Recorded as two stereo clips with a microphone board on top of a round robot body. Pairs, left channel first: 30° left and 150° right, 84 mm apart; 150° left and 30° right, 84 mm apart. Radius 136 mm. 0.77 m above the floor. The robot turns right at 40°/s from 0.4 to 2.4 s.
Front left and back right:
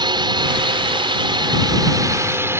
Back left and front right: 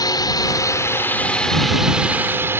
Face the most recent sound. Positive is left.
turn(degrees=-90)